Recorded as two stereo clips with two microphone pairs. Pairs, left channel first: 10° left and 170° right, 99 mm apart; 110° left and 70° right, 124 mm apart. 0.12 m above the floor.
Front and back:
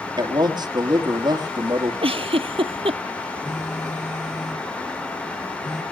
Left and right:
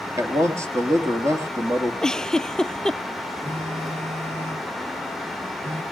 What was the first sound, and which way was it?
A man speaking, 135° right.